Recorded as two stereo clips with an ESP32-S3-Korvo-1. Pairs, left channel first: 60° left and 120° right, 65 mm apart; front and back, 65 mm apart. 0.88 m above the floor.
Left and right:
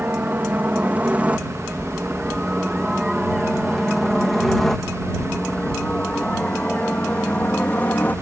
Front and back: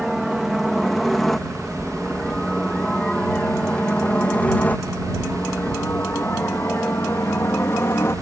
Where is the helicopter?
95° right; by 8.2 s 15° left.